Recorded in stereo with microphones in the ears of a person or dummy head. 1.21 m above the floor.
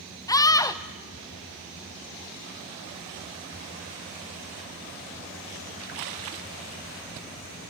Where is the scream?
20° left (ahead or behind), 1.2 m.